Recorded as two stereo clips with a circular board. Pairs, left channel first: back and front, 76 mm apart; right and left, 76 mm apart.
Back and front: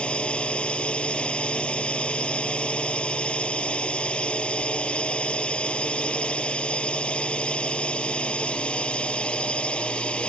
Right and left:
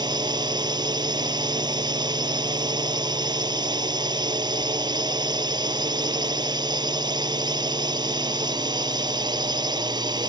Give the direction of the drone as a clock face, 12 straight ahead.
9 o'clock.